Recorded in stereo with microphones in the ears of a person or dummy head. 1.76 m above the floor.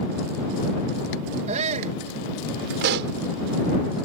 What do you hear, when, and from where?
1.5 s a shout: 40° right (ahead or behind)
2.8 s a pop: 65° right (ahead or behind)